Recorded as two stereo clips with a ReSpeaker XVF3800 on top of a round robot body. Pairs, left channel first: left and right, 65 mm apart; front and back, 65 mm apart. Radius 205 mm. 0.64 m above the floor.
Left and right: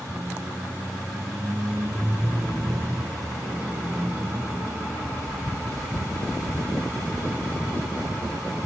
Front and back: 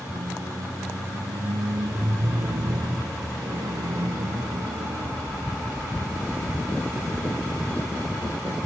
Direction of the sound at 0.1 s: 160° right.